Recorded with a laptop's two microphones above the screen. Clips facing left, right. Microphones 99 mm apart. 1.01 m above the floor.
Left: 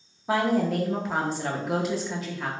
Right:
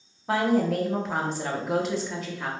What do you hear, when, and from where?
0.3 s a woman speaking: centre (ahead or behind), 0.5 m